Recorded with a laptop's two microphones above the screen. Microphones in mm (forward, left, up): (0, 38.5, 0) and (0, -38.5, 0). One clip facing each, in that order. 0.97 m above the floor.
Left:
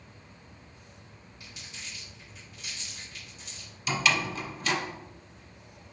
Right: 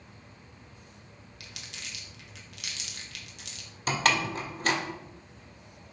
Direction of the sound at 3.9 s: 50° right (ahead or behind).